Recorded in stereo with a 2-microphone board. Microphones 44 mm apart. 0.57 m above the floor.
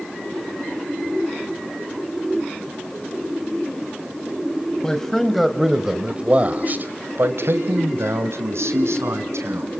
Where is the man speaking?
15° left (ahead or behind), 3 m; by 9.7 s 80° right, 5 m.